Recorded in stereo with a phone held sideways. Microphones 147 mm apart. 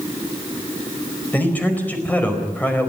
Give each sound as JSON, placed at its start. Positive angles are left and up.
{"t": 1.3, "sound": "a man speaking", "side_deg": 10, "distance_m": 4.5}